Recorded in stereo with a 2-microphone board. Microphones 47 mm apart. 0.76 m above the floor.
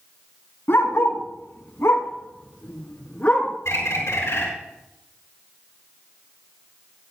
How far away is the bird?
About 5.5 m.